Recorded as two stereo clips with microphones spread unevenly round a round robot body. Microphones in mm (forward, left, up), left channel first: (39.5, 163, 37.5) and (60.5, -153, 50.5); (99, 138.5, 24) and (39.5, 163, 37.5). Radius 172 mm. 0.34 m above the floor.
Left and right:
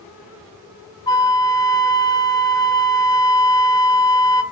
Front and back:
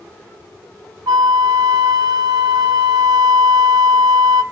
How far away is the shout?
I don't hear a shout.